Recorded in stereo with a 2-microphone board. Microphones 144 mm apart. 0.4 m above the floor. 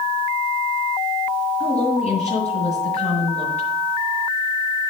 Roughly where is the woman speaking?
Left.